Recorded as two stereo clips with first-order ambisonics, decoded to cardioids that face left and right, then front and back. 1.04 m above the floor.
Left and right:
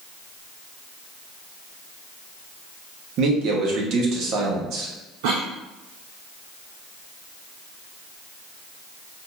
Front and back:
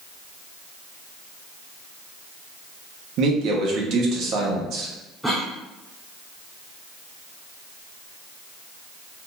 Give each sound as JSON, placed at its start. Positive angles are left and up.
{"t": 3.2, "sound": "a man speaking", "azimuth_deg": -135, "distance_m": 1.2}
{"t": 5.2, "sound": "a cough", "azimuth_deg": -90, "distance_m": 0.7}